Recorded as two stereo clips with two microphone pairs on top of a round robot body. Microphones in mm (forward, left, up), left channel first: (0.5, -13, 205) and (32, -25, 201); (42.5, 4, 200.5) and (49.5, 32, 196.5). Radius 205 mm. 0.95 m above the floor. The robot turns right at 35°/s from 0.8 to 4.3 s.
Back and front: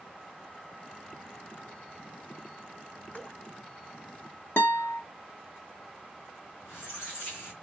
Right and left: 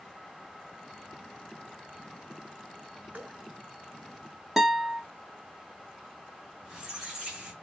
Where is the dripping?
110° left, 2.5 m; by 3.4 s 120° left, 2.5 m.